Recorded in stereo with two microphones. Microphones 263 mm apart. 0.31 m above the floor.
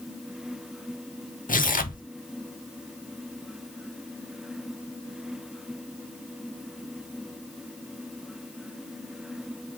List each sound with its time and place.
1.5 s tearing paper: 30° left (ahead or behind), 0.8 m